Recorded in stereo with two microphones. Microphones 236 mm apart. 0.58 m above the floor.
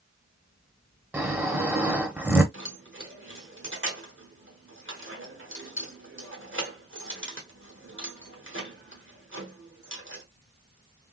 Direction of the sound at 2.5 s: 65° right (ahead or behind).